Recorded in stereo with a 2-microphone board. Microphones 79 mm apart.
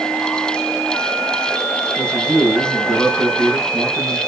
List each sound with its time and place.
2.0 s a man speaking: 10° left (ahead or behind), 4.5 m